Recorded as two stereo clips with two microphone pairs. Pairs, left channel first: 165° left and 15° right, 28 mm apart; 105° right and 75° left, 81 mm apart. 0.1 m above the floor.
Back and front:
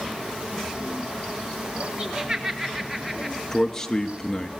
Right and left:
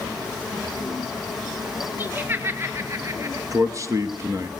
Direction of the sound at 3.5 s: 95° left.